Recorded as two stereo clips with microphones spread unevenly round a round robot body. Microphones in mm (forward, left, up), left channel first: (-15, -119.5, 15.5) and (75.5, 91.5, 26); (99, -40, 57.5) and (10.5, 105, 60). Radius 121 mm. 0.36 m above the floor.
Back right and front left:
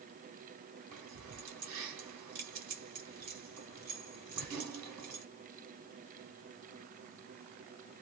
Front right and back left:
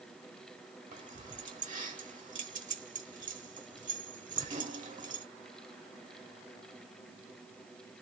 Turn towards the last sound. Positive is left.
turn(degrees=80)